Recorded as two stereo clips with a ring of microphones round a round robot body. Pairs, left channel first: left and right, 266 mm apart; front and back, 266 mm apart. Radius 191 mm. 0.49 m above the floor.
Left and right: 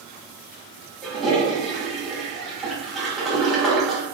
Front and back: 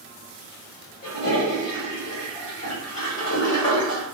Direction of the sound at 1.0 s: Straight ahead.